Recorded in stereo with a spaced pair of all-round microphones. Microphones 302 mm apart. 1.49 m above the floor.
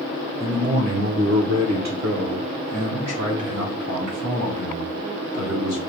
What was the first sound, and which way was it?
A man speaking, 10° right (ahead or behind).